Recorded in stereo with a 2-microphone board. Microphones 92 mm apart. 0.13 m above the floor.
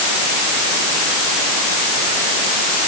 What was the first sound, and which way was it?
Only background noise.